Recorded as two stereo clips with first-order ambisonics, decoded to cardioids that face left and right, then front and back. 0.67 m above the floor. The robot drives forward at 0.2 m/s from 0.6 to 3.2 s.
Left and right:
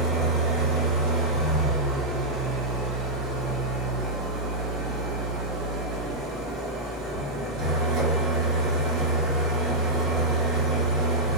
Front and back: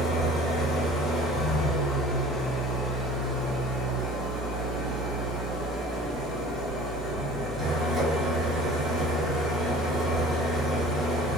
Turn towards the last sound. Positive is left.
turn(degrees=-100)